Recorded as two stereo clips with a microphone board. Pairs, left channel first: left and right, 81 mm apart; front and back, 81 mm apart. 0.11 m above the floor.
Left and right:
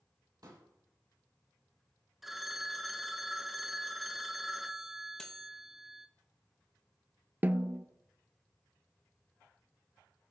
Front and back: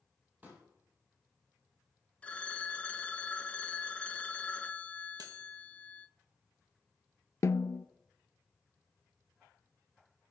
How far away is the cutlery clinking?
About 1.9 m.